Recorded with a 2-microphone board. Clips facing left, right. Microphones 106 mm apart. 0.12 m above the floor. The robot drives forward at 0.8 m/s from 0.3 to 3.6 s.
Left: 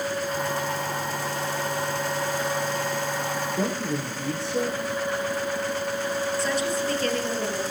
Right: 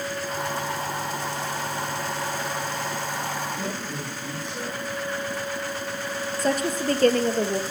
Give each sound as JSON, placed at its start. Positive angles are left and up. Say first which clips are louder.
{"t": 3.6, "sound": "a man speaking", "louder": "left 5 dB", "side_deg": 80, "distance_m": 6.0}
{"t": 6.4, "sound": "a woman speaking", "louder": "right 1 dB", "side_deg": -50, "distance_m": 2.0}